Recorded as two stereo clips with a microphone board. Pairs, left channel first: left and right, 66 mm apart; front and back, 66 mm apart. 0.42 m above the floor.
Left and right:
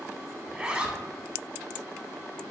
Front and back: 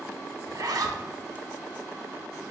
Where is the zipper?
160° right, 0.5 m.